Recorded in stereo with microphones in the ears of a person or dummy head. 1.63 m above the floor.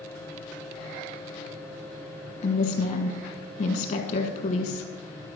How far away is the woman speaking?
About 1.3 m.